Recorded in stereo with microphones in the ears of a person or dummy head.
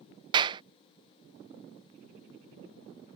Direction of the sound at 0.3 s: 25° right (ahead or behind).